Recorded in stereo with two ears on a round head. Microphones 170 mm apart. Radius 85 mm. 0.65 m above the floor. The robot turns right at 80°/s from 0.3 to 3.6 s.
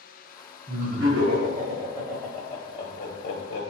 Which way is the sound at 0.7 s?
35° right (ahead or behind).